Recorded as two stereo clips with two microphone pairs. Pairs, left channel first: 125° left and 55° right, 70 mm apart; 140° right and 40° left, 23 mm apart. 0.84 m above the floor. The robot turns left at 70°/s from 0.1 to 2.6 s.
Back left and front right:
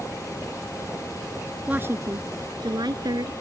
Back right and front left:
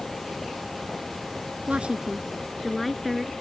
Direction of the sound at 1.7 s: 15° left.